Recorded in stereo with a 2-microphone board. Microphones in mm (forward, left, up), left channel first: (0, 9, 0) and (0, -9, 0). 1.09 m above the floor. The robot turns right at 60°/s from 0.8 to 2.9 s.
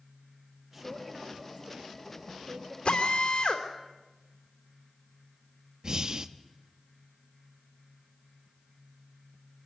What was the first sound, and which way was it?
A man speaking, 170° right.